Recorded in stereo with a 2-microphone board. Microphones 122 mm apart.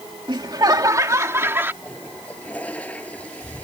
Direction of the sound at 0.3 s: 40° right (ahead or behind).